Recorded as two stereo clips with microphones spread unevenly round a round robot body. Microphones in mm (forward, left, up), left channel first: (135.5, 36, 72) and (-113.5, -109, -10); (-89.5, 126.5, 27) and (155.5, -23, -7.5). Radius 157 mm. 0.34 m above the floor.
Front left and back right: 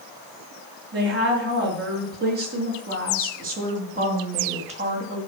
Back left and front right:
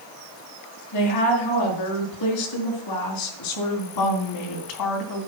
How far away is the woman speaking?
About 5 m.